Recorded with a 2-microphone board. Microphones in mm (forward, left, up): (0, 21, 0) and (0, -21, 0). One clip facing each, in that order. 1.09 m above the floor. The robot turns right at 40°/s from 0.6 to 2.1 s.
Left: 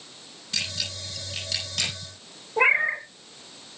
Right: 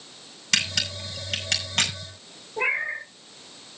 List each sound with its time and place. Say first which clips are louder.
0.5 s a camera shutter: right 6 dB; 85° right, 8 m; by 1.9 s 45° right (ahead or behind), 8 m
2.6 s a cat meowing: left 5 dB; 35° left (ahead or behind), 2 m